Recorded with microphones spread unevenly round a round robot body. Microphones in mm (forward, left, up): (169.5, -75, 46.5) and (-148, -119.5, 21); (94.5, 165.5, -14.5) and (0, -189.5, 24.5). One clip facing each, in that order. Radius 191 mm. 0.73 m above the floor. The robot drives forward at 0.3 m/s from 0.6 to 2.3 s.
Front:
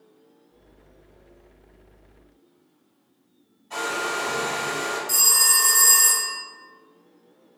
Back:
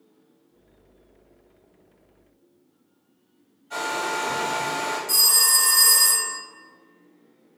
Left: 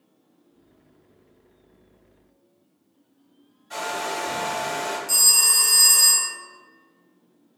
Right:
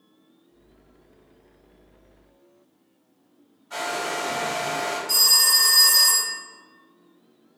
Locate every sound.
3.7 s a hair dryer: 120° left, 1.1 m
5.1 s a phone ringing: 135° left, 0.9 m